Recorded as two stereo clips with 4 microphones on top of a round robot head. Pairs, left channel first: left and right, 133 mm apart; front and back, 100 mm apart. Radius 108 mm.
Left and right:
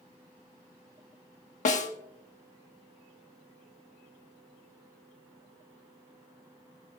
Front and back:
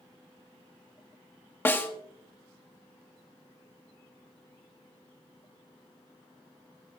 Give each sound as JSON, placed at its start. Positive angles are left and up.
{"t": 1.6, "sound": "a snare drum", "azimuth_deg": 70, "distance_m": 1.5}